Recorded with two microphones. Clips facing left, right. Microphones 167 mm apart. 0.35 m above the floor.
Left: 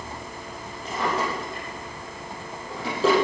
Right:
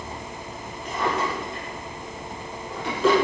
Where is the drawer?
35° left (ahead or behind), 8 m.